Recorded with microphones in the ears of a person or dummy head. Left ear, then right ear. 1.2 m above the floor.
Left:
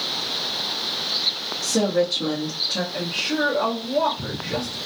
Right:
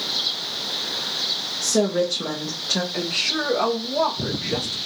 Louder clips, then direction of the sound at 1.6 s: Left 1 dB; 65° right (ahead or behind).